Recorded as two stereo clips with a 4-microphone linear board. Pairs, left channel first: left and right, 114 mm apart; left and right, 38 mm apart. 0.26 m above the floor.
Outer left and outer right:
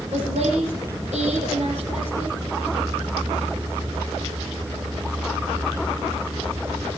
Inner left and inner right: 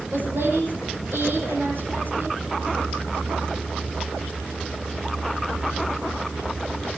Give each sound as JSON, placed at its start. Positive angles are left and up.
{"t": 0.1, "sound": "a woman speaking", "side_deg": -75, "distance_m": 9.0}